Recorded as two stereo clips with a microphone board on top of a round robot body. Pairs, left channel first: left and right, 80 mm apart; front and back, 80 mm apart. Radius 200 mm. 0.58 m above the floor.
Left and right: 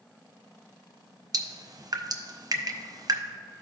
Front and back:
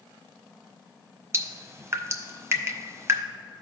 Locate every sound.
1.3 s dripping: 125° right, 0.7 m